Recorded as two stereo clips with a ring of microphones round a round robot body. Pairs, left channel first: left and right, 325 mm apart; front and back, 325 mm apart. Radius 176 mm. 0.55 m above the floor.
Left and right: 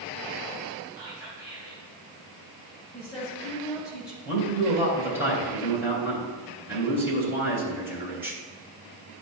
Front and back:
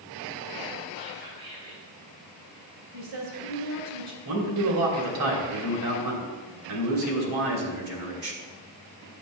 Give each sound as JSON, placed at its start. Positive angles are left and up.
{"t": 1.0, "sound": "whispering", "azimuth_deg": -170, "distance_m": 3.5}
{"t": 2.9, "sound": "a woman speaking", "azimuth_deg": 170, "distance_m": 3.0}
{"t": 4.2, "sound": "a man speaking", "azimuth_deg": -175, "distance_m": 3.0}